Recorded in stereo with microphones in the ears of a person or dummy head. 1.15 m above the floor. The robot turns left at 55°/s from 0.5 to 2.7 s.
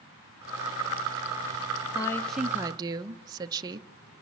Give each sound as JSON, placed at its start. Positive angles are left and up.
{"t": 1.9, "sound": "a woman speaking", "azimuth_deg": 20, "distance_m": 0.7}